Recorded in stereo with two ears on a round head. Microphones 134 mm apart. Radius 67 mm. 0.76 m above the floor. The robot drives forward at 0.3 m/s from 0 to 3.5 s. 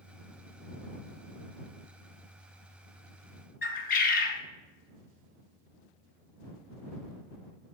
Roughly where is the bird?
Left.